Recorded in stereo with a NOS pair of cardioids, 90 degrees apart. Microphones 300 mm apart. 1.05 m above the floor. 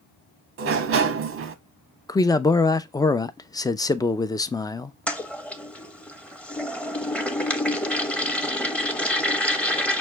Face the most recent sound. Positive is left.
turn(degrees=5)